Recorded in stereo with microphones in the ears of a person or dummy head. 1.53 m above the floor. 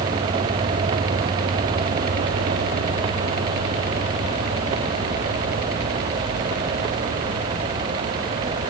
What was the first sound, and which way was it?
Only background noise.